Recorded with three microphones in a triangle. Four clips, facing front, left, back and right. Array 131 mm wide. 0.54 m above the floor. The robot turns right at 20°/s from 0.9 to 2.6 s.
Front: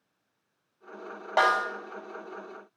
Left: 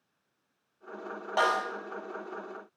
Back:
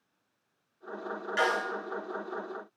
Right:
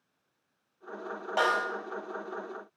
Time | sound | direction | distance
1.4 | a snare drum | 5° left | 1.2 m